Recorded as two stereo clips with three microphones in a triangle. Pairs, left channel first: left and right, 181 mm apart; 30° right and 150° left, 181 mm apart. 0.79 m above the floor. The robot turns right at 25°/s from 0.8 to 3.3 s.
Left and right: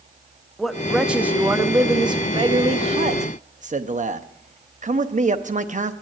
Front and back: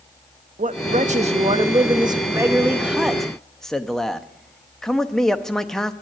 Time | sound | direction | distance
0.6 | a man speaking | straight behind | 0.7 m